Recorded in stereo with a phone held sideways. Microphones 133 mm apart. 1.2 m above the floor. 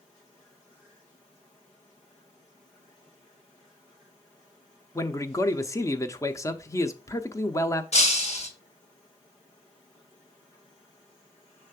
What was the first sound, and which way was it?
A man speaking, 20° left (ahead or behind).